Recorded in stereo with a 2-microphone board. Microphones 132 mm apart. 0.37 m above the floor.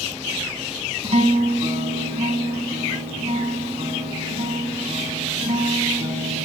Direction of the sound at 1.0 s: 60° right (ahead or behind).